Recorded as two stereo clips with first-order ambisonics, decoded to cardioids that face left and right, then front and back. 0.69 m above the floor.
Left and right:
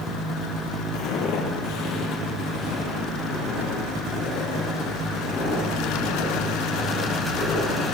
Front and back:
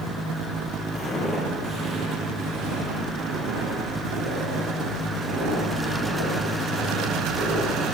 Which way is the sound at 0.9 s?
70° left.